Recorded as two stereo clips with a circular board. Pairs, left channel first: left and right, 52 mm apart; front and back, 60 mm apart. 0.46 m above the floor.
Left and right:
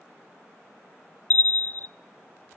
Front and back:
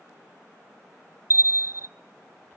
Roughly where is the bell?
Behind left.